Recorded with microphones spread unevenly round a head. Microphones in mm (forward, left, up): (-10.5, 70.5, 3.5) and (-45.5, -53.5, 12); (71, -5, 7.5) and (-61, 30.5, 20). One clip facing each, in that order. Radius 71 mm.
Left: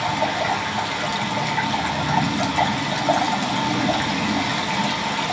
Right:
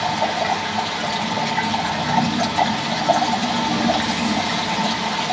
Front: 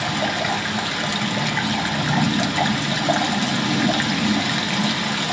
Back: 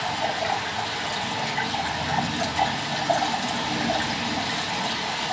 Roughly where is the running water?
Ahead.